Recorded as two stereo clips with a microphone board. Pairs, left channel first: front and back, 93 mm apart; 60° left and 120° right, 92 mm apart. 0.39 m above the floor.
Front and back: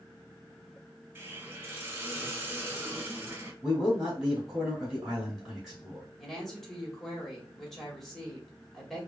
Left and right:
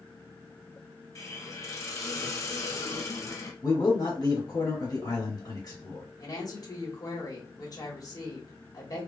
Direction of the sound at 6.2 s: 85° left.